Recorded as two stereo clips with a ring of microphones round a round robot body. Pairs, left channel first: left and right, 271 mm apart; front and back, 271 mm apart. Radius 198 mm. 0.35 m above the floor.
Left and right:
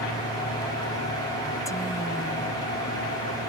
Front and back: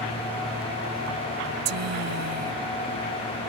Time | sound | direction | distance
1.6 | a woman speaking | 170° left | ?